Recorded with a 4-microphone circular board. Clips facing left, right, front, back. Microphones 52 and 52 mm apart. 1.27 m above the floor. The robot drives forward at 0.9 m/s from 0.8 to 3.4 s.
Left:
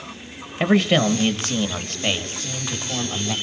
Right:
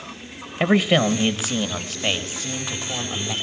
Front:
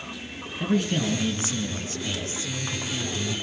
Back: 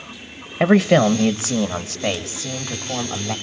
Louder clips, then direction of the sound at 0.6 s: Even, back 11 dB; 175° right.